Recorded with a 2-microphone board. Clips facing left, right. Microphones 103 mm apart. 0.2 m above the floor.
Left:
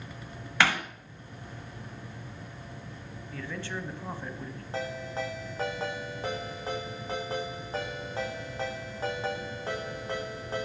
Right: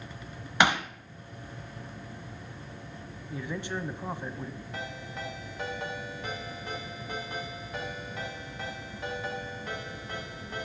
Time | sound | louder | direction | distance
0.6 | hammering | right 2 dB | 20° right (ahead or behind) | 1.4 m
3.3 | a man speaking | right 3 dB | 15° right (ahead or behind) | 1.1 m
4.7 | a ringtone | left 9 dB | 30° left (ahead or behind) | 6 m